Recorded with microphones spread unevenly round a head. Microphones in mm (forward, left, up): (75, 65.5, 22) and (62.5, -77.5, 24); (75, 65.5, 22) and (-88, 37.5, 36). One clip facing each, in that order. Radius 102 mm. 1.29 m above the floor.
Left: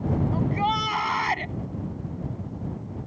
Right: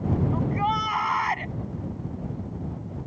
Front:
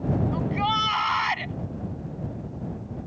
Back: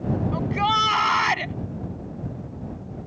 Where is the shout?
155° left.